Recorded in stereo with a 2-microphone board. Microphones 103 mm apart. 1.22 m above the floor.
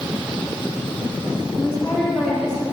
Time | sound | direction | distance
1.6 | a woman speaking | centre (ahead or behind) | 4 m